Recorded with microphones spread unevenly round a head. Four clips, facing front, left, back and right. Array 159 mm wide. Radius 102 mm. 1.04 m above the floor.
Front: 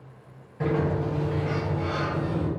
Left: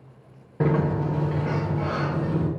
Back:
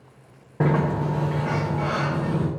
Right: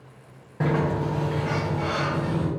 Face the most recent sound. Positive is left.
turn(degrees=145)